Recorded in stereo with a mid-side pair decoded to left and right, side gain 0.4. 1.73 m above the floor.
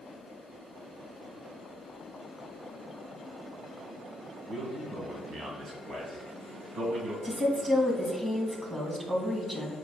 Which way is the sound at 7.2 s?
20° right.